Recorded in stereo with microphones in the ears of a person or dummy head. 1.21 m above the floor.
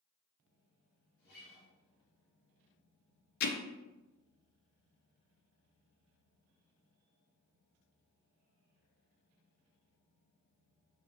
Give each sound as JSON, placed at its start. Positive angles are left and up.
{"t": 1.2, "sound": "a guitar", "side_deg": 55, "distance_m": 1.9}
{"t": 3.4, "sound": "hammering", "side_deg": 50, "distance_m": 0.5}